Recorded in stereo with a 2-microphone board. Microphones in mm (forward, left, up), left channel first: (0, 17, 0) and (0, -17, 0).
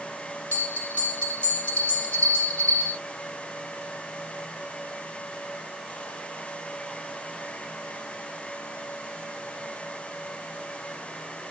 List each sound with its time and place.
0.5 s a bell: 45° left (ahead or behind), 1.6 m